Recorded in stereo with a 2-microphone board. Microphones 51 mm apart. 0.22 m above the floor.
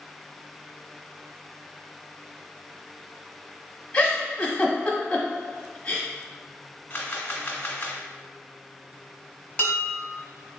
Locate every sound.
3.9 s a giggle: 20° left (ahead or behind), 0.9 m
6.9 s a camera shutter: 30° left (ahead or behind), 1.0 m
9.6 s dishes clattering: 25° left (ahead or behind), 0.9 m